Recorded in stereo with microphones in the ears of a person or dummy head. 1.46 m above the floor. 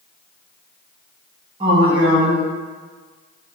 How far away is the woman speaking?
About 1.1 m.